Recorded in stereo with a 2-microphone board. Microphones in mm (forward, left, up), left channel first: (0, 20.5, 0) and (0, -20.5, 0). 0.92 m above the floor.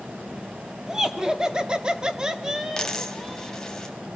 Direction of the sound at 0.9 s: 10° right (ahead or behind).